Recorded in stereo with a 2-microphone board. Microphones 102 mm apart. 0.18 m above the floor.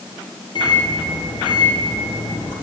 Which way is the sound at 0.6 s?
50° left (ahead or behind).